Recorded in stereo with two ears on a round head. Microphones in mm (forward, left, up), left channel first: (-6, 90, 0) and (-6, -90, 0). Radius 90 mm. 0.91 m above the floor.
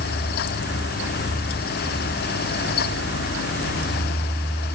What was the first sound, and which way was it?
Only background noise.